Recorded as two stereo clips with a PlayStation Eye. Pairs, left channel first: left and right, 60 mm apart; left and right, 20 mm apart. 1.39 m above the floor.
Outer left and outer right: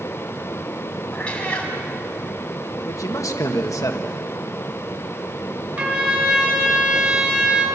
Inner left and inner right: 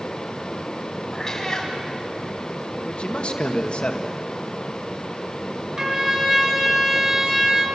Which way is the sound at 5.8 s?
30° right (ahead or behind).